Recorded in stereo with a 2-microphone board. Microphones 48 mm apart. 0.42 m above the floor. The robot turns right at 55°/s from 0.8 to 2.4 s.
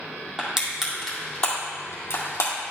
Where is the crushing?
5° right (ahead or behind), 2.5 m; by 2.5 s 80° left, 2.5 m.